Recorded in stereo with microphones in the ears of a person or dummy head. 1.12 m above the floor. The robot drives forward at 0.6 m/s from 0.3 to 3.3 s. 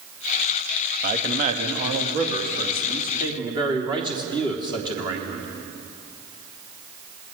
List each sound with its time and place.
1.0 s a man speaking: 45° right (ahead or behind), 1.7 m; by 5.5 s 25° right (ahead or behind), 3 m